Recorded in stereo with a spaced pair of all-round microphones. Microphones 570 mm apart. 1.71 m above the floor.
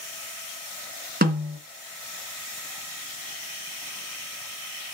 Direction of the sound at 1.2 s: 15° right (ahead or behind).